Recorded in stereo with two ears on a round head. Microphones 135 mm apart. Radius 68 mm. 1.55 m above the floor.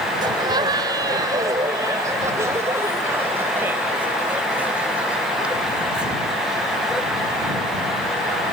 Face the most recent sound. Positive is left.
turn(degrees=-5)  # may be behind; listen again after turning